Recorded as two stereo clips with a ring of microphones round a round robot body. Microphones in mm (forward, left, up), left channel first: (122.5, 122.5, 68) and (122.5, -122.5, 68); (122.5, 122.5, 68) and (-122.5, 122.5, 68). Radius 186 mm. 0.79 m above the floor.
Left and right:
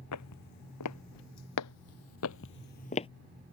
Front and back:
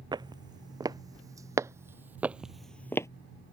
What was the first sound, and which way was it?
Footsteps, 105° left.